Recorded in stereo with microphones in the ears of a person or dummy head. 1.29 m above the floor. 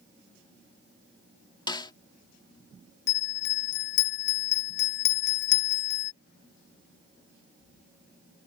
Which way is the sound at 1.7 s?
30° left (ahead or behind).